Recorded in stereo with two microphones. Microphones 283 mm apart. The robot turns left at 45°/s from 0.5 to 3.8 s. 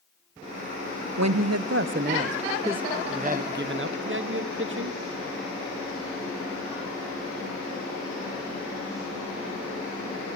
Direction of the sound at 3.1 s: 25° right.